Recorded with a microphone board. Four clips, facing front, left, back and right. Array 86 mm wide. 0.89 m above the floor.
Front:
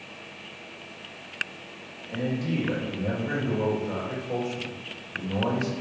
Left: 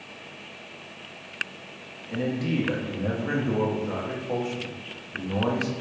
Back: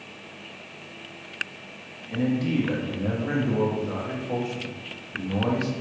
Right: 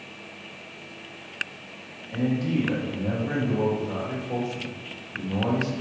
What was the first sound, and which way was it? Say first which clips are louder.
A man speaking: right 2 dB, back 4 dB; 130° left.